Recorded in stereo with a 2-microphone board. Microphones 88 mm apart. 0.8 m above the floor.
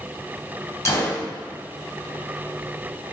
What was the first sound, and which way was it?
A gunshot, 35° left (ahead or behind).